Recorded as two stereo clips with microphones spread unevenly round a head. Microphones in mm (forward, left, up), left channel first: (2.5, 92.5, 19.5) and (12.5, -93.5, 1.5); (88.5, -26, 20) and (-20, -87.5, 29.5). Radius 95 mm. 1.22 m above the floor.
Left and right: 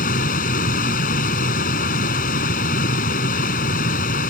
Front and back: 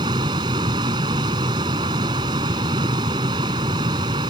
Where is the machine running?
140° left.